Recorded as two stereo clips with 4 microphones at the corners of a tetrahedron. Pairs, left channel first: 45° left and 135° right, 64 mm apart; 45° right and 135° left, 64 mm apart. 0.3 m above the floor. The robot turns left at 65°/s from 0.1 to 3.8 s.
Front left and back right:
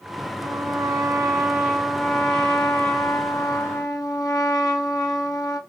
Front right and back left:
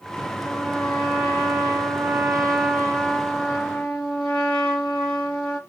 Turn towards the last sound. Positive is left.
turn(degrees=20)